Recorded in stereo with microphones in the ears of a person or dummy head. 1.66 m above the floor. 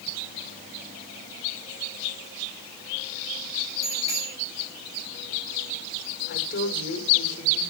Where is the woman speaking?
40° left (ahead or behind), 5 m.